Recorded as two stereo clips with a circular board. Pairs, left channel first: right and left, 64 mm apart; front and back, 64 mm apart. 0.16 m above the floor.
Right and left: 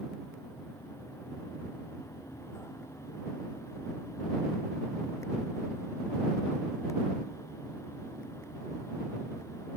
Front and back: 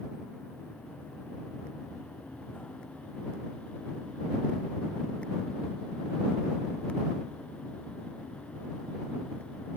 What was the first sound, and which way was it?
Only background noise.